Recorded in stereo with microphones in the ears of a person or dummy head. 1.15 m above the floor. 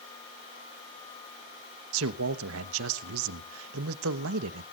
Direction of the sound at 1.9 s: 70° right (ahead or behind).